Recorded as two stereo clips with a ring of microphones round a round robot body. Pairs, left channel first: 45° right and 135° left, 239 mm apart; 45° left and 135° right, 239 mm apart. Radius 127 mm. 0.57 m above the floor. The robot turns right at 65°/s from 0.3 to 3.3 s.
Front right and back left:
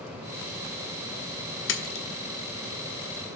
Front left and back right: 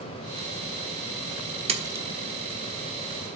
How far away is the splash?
About 1.3 m.